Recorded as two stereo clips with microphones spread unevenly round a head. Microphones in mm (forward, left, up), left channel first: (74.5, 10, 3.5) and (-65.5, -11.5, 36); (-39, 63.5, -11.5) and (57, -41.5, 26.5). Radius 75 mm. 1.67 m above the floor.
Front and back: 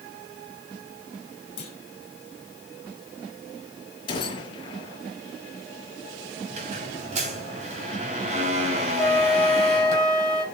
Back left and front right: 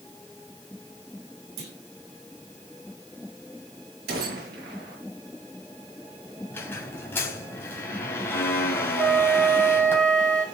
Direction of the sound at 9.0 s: 80° right.